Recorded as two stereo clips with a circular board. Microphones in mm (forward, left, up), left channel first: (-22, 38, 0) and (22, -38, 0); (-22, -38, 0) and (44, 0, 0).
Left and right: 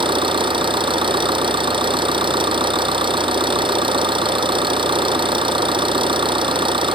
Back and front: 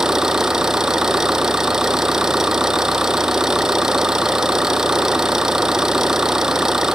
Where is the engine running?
55° right.